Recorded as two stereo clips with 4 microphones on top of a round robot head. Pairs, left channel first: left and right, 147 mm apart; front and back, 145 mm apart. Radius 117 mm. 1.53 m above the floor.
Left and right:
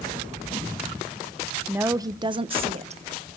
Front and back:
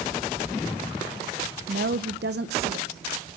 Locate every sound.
1.7 s a woman speaking: 165° right, 0.7 m; by 3.0 s 130° right, 1.1 m